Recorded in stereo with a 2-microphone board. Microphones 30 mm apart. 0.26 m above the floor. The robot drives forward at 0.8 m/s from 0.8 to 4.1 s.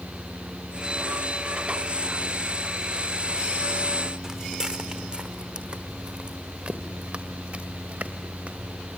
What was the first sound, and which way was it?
Footsteps, 20° right (ahead or behind).